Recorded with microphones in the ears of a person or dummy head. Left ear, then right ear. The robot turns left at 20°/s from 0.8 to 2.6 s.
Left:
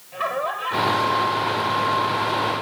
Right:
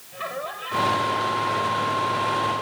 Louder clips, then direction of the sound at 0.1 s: Left 6 dB; 140° left.